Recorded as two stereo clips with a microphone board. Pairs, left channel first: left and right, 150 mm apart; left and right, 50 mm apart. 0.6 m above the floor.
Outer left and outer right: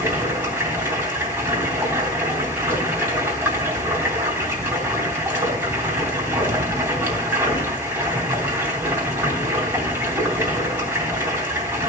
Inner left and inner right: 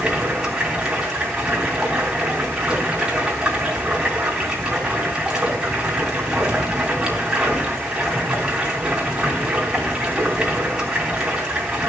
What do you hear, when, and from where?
0.0 s running water: 15° right (ahead or behind), 3.5 m